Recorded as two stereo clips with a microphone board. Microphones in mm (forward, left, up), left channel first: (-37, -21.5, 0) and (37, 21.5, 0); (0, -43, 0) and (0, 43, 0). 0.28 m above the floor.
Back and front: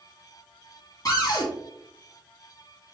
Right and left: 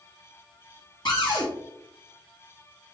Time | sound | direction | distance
1.1 | a cupboard door | 110° right | 2.5 m